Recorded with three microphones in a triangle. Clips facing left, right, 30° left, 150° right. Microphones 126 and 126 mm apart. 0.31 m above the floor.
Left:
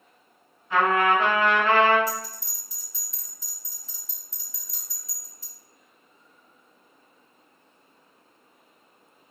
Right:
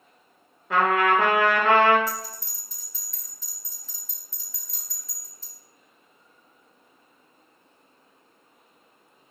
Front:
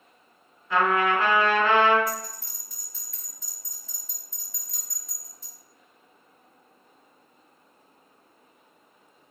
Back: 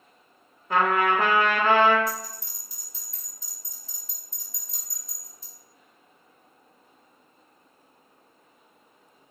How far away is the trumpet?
About 0.5 m.